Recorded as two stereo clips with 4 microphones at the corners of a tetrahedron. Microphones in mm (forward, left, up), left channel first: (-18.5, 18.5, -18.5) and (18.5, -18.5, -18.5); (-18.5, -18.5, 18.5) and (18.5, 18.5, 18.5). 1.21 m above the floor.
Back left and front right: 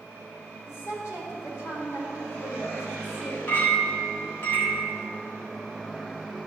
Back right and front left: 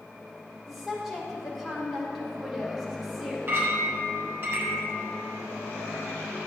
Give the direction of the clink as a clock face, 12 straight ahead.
9 o'clock.